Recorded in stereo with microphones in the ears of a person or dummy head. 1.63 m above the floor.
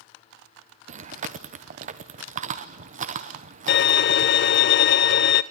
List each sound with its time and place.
0.9 s chewing: 40° right (ahead or behind), 0.9 m
3.7 s a violin: 60° left (ahead or behind), 0.6 m